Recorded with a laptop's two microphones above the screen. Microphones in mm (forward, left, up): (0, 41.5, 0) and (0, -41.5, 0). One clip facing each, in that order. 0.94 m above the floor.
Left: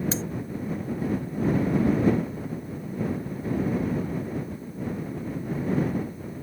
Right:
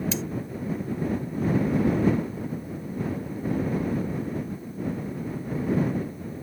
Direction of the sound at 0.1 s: 35° left (ahead or behind).